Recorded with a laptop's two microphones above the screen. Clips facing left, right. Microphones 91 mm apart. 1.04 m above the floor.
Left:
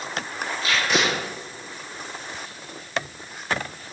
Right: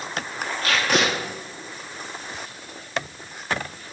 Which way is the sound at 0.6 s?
65° right (ahead or behind).